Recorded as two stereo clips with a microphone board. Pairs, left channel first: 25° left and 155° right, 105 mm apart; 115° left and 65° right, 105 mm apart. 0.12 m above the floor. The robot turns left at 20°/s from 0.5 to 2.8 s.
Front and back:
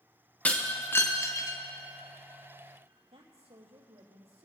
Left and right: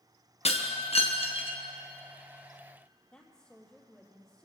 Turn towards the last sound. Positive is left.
turn(degrees=-165)